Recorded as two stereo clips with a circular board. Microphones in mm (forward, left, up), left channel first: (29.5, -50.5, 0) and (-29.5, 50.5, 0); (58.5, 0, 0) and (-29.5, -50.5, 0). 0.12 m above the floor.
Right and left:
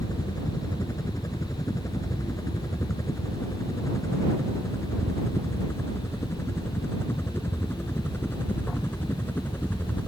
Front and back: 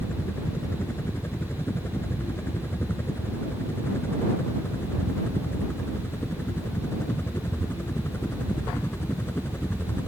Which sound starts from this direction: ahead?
A helicopter, at 0.0 s.